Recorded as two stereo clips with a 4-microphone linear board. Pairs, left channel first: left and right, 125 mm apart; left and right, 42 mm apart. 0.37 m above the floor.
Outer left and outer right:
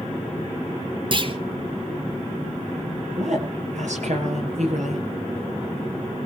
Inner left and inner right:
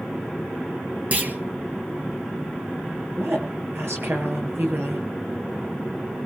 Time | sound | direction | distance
1.1 | a clunk | 40° right (ahead or behind) | 2.5 m
3.2 | a woman speaking | 70° right (ahead or behind) | 8.5 m